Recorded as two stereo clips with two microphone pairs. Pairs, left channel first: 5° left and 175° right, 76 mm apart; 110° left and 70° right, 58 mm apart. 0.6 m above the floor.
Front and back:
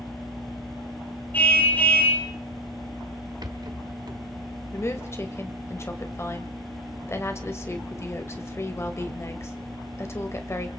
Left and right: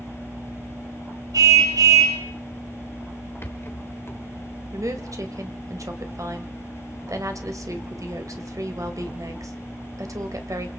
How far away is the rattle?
About 1.6 m.